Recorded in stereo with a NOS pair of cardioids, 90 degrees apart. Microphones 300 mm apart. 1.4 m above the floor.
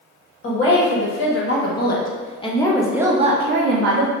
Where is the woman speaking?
45° left, 1.6 m; by 4.1 s 75° right, 0.7 m.